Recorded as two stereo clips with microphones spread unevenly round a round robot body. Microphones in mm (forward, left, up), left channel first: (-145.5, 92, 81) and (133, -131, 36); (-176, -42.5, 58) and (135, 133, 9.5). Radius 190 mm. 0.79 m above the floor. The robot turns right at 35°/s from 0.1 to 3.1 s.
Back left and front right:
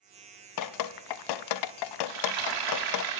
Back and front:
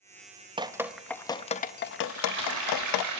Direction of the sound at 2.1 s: 40° right.